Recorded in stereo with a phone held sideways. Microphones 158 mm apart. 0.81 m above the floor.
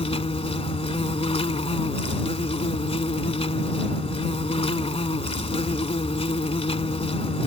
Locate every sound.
0.0 s an insect: 40° left (ahead or behind)